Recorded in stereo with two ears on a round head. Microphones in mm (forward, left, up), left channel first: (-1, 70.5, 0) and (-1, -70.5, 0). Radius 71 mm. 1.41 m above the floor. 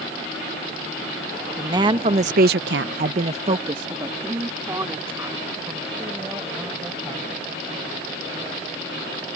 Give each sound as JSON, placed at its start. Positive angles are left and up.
{"t": 1.6, "sound": "a woman speaking", "side_deg": -20}